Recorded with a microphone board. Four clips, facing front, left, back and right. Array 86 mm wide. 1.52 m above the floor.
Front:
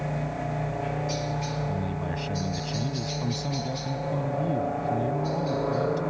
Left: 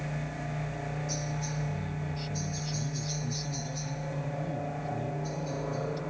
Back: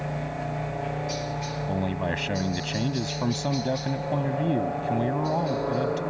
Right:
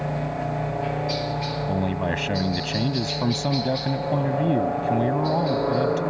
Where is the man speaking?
120° right.